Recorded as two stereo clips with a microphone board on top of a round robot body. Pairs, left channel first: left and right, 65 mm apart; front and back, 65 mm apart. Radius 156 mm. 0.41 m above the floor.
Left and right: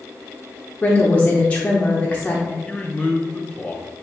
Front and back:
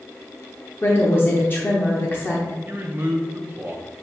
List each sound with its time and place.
0.8 s a woman speaking: 35° left, 1.0 m
2.7 s a man speaking: 145° left, 0.8 m